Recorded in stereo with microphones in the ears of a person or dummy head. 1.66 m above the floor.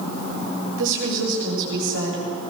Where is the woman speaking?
70° right (ahead or behind), 8 m; by 2.2 s 75° right (ahead or behind), 9.5 m.